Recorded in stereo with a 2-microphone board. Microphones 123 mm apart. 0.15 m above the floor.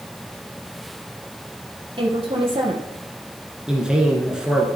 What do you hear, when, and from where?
2.0 s a woman speaking: 45° right (ahead or behind), 3.5 m
3.7 s a man speaking: 5° right (ahead or behind), 2 m